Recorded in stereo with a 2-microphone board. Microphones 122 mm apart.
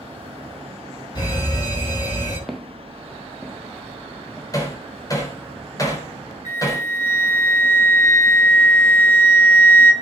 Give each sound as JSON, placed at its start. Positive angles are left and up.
{"t": 1.1, "sound": "a fire alarm", "side_deg": 35, "distance_m": 9.0}
{"t": 2.5, "sound": "footsteps", "side_deg": 0, "distance_m": 1.6}
{"t": 4.5, "sound": "hammering", "side_deg": 30, "distance_m": 4.0}
{"t": 6.5, "sound": "a flute", "side_deg": 80, "distance_m": 4.5}